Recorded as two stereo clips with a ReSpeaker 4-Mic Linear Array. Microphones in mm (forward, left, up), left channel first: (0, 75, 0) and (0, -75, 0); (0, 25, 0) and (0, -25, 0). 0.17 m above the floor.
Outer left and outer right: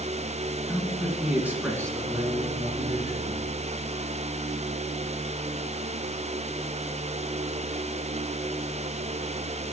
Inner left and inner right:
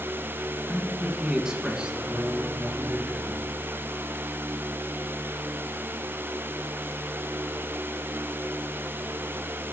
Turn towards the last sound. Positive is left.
turn(degrees=-35)  # may be behind; listen again after turning